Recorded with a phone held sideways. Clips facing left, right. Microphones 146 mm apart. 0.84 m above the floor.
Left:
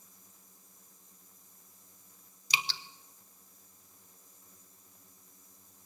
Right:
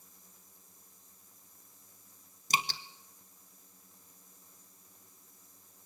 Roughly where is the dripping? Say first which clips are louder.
Right 4 dB; right.